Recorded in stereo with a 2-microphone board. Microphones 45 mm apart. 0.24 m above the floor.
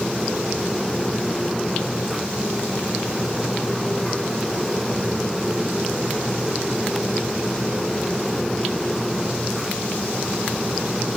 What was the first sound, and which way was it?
Only background noise.